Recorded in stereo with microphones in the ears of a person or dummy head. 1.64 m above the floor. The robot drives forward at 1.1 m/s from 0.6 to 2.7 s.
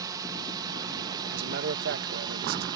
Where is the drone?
20° right (ahead or behind).